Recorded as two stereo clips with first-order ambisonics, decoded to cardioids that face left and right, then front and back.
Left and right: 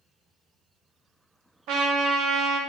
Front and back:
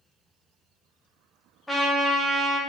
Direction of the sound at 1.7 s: 85° right.